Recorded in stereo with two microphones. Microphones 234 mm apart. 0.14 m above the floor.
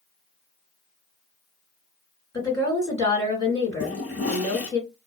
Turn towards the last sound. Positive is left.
turn(degrees=70)  # may be behind; listen again after turning